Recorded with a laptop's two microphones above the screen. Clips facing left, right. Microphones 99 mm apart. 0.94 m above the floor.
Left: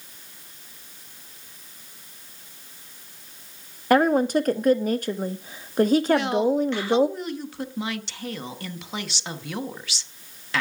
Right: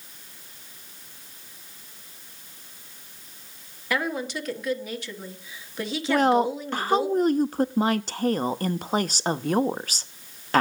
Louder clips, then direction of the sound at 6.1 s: Even; 40° right (ahead or behind).